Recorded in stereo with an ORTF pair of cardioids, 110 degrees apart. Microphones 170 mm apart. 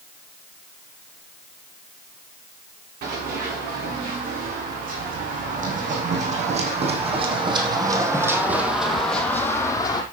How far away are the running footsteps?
About 6.5 m.